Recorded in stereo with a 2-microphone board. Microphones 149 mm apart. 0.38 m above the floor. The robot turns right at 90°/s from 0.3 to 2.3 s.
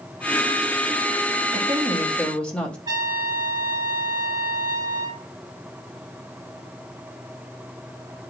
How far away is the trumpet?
About 1.4 m.